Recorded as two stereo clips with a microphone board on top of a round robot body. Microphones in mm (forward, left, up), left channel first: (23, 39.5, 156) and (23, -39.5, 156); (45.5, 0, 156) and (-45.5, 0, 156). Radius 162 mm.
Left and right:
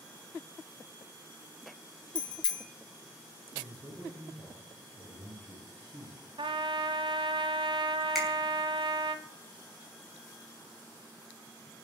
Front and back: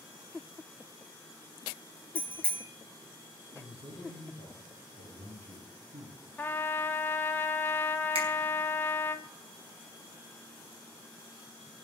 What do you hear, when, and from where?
2.1 s a bicycle bell: 75° left, 3 m
3.5 s a man speaking: 160° right, 7 m
6.4 s a trumpet: 70° right, 1.1 m
8.2 s a finger snap: 175° right, 6 m